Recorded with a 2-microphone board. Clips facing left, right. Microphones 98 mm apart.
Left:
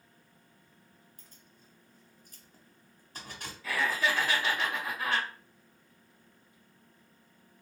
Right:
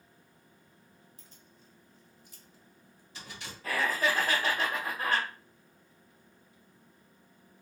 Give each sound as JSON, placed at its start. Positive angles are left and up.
{"t": 1.2, "sound": "keys jangling", "side_deg": 45, "distance_m": 1.5}
{"t": 3.6, "sound": "laughter", "side_deg": -40, "distance_m": 1.6}